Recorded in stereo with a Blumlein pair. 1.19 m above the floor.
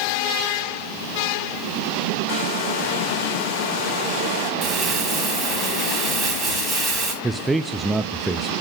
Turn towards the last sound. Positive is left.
turn(degrees=-10)